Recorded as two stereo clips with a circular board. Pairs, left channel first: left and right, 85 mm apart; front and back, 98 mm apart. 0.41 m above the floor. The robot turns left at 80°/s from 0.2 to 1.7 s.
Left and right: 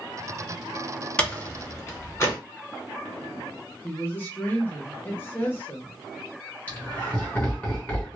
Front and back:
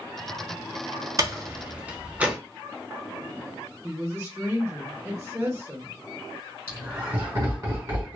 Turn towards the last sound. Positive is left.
turn(degrees=145)